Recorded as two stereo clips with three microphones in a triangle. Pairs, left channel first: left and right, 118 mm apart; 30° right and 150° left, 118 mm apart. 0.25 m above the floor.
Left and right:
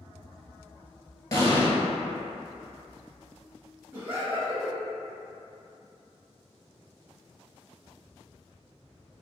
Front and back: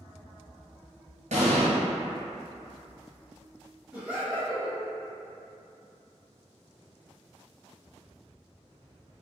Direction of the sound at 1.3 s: 155° left.